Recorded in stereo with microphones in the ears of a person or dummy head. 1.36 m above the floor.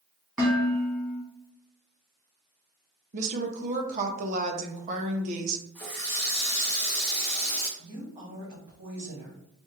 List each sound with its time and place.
0.4 s dishes clattering: 15° right (ahead or behind), 1.6 m
3.1 s a woman speaking: 45° right (ahead or behind), 0.7 m
5.8 s a running tap: 5° left (ahead or behind), 1.1 m
7.8 s a woman speaking: 30° right (ahead or behind), 2 m